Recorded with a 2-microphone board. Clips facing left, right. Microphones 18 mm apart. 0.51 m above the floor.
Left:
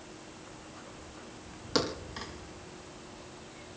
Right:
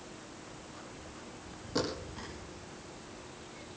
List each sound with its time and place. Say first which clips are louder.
1.8 s a thud: left 3 dB; 75° left (ahead or behind), 4.5 m